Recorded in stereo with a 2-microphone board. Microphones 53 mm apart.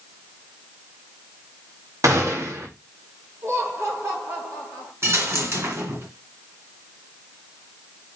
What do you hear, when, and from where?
2.0 s a gunshot: 75° right (ahead or behind), 2.5 m
3.4 s laughter: 65° right (ahead or behind), 4.5 m
5.0 s a dropped coin: 55° right (ahead or behind), 2.5 m